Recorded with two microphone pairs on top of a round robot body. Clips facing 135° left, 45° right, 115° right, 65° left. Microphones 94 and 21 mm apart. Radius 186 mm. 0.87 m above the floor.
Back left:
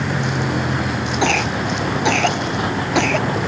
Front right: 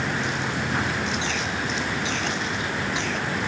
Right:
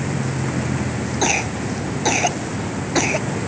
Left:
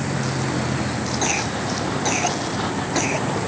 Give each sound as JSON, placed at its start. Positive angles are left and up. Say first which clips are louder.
{"t": 0.0, "sound": "a vehicle", "louder": "back left 5 dB, even", "azimuth_deg": 105}
{"t": 1.2, "sound": "a cough", "louder": "back left 9 dB, right 4 dB", "azimuth_deg": 165}